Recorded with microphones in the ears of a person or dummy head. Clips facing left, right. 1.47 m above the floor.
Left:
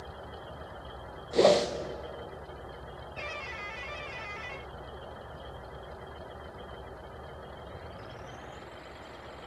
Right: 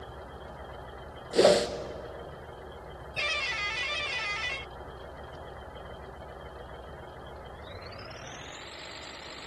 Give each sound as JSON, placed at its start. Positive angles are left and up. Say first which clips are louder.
{"t": 1.3, "sound": "a whoosh", "louder": "right 1 dB", "side_deg": -10, "distance_m": 0.9}